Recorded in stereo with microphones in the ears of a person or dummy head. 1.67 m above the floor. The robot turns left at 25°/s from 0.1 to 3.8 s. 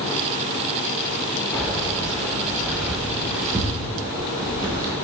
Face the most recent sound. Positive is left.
turn(degrees=-25)  # may be behind; listen again after turning